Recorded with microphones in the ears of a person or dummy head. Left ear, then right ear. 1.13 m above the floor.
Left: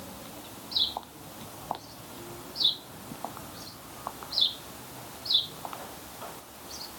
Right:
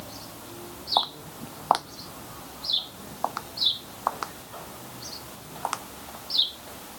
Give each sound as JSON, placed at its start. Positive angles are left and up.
{"t": 1.0, "sound": "footsteps", "side_deg": -40}